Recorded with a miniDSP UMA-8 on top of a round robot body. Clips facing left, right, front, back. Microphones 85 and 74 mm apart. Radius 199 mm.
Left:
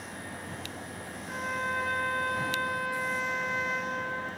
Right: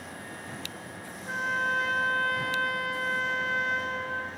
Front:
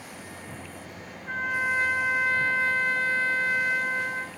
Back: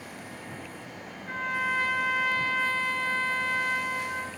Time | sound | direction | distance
1.3 | a trumpet | 65° right | 3.5 m